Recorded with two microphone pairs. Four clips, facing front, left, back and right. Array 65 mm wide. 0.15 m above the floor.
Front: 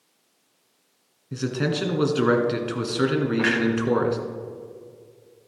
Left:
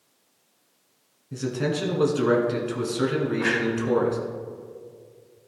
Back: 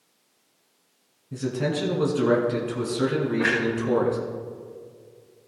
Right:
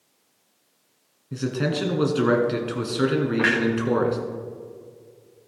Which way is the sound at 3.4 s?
65° right.